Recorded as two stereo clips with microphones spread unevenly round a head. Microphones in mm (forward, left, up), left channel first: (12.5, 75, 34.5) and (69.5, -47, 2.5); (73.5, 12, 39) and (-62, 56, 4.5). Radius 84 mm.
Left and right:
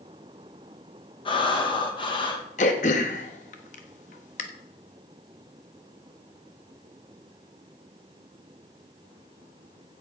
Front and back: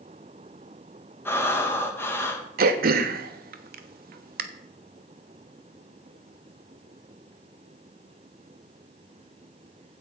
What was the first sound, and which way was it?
Breathing, 60° left.